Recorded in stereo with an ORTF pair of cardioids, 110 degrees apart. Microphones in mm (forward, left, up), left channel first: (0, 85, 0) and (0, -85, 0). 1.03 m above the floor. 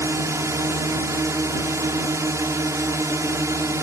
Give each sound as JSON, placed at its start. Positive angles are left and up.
{"t": 0.0, "sound": "a drone", "azimuth_deg": -20}